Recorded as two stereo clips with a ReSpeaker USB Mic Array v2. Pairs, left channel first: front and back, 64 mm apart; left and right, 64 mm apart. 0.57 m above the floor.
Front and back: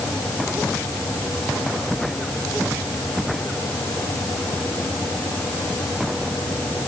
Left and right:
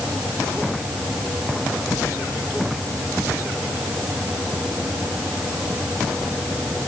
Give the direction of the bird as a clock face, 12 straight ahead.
No bird in this recording.